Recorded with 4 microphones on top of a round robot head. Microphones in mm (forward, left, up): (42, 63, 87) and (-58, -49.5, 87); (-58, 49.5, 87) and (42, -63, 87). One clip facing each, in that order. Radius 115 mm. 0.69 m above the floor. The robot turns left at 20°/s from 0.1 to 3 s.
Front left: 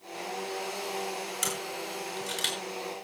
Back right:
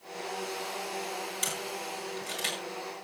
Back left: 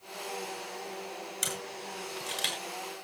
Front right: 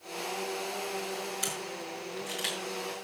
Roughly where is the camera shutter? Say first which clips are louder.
Front left 1 dB, front right 2 dB; left.